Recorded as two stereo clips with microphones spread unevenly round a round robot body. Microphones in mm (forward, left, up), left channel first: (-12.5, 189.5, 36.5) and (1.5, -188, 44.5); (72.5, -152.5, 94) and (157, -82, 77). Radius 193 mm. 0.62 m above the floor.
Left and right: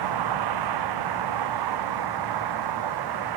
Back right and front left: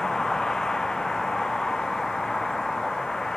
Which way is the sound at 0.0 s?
55° right.